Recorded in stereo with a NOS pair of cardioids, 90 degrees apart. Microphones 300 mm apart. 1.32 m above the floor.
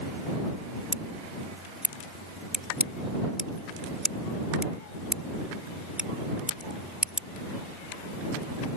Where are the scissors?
5° right.